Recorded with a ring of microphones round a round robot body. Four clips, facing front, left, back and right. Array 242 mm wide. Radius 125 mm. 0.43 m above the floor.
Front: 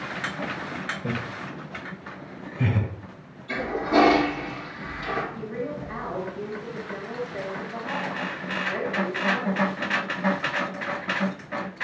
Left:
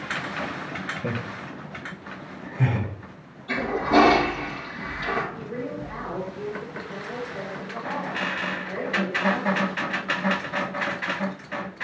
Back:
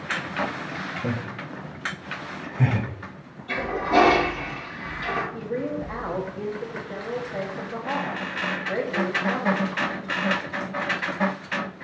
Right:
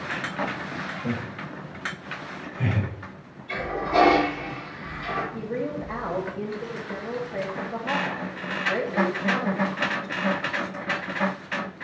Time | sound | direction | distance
1.0 | laughter | 135° left | 2.5 m
3.5 | a toilet flushing | 115° left | 4.5 m
5.3 | a woman speaking | 135° right | 2.5 m